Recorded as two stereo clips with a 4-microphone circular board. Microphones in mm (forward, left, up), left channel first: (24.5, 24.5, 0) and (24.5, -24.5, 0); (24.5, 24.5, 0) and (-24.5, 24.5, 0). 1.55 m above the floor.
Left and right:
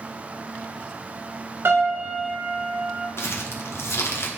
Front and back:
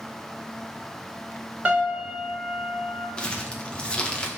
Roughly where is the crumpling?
Ahead left.